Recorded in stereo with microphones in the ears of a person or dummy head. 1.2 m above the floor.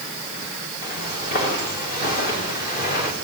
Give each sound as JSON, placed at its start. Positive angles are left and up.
{"t": 0.8, "sound": "footsteps", "side_deg": 50, "distance_m": 9.0}